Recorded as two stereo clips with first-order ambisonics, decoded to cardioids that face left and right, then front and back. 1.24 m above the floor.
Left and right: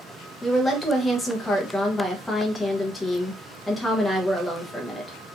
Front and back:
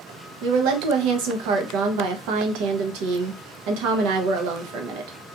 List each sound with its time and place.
0.4 s a woman speaking: 175° left, 0.6 m